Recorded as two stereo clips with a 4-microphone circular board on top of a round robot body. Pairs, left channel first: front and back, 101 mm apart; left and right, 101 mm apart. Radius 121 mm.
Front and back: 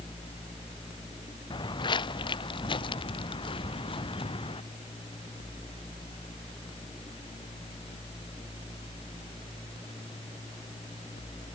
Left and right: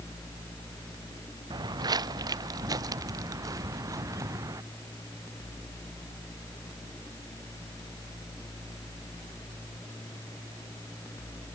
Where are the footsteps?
40° right; by 4.6 s 30° right.